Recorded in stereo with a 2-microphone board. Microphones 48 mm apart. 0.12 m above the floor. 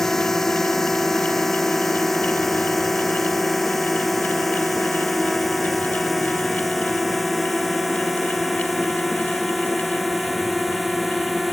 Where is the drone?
10° left (ahead or behind); by 11.5 s 5° right (ahead or behind).